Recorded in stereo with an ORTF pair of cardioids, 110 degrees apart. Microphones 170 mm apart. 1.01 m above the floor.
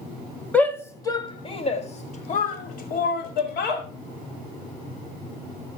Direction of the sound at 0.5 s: 10° left.